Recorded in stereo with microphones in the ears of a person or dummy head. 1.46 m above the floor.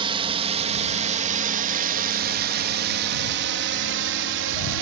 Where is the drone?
30° right (ahead or behind); by 4.8 s 70° right (ahead or behind).